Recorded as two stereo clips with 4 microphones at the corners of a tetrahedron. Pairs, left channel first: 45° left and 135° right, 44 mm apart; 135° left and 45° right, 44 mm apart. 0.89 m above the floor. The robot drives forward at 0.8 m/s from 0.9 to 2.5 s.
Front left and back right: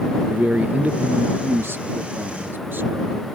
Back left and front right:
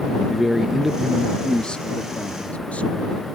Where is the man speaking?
120° right; by 3.3 s 165° right.